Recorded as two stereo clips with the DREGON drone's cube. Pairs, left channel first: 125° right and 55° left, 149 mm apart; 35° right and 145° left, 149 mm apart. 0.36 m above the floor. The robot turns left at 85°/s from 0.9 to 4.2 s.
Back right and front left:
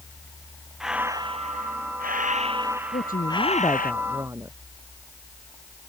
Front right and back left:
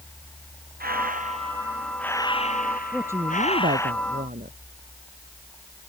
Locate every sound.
0.8 s breathing: 140° left; by 3.9 s 115° right
2.9 s a woman speaking: 125° right; by 4.6 s 125° left